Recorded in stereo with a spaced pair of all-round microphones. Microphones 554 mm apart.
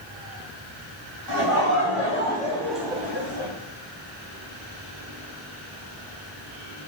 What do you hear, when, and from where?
1.3 s laughter: 40° left (ahead or behind), 2 m; by 3.5 s 35° right (ahead or behind), 1.2 m